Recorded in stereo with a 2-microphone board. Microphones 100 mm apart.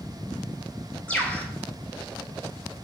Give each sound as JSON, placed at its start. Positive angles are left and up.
{"t": 1.1, "sound": "a bird", "side_deg": 10, "distance_m": 0.8}